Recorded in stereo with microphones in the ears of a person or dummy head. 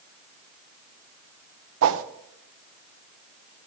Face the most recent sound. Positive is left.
turn(degrees=-75)  # may be behind; listen again after turning